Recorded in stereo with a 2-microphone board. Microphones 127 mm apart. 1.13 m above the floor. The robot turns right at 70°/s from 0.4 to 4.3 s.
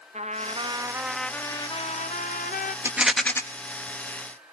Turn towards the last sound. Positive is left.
turn(degrees=80)